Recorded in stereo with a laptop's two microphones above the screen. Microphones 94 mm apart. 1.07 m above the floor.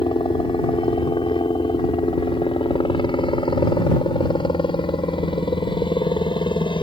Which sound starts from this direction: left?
A helicopter, at 0.0 s.